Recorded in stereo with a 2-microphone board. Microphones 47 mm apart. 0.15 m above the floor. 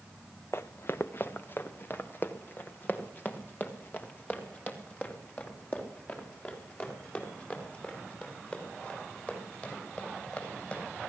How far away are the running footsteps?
About 0.7 m.